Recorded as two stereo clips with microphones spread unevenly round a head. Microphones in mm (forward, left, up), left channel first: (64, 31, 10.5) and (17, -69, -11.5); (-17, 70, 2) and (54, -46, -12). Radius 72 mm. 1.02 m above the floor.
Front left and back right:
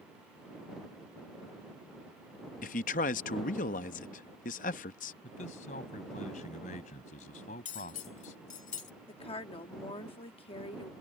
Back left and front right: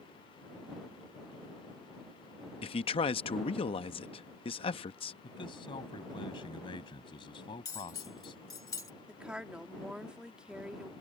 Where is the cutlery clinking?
55° left.